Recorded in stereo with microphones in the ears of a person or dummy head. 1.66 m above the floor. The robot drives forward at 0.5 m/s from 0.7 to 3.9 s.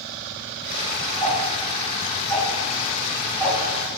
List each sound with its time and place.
1.2 s ticking: centre (ahead or behind), 7.5 m; by 3.6 s 5° left (ahead or behind), 6.5 m